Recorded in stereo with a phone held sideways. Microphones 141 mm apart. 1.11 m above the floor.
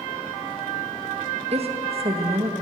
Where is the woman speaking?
45° right (ahead or behind), 1.4 m.